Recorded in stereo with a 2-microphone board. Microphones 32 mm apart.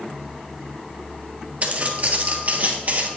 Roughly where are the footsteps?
Right.